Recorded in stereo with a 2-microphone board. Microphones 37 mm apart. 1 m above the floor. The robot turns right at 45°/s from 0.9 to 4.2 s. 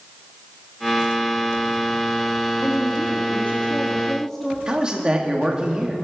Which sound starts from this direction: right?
A man speaking, at 4.7 s.